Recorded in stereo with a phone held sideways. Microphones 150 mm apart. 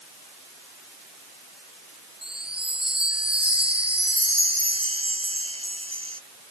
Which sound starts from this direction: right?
A chime, at 2.2 s.